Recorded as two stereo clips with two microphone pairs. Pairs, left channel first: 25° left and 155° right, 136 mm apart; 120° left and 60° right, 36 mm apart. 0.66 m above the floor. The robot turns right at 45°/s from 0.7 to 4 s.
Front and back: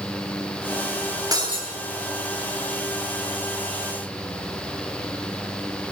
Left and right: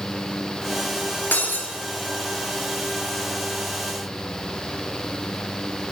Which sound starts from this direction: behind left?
Breaking glass, at 1.3 s.